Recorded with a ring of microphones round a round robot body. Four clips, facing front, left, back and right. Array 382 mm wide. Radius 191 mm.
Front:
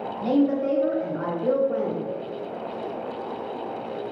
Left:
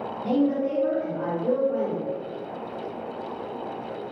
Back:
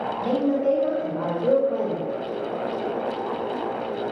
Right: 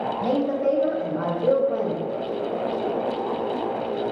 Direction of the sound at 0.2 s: 75° right.